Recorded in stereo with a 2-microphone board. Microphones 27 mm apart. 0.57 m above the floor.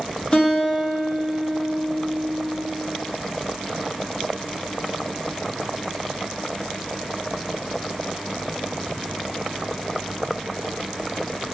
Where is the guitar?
35° left (ahead or behind), 0.8 m.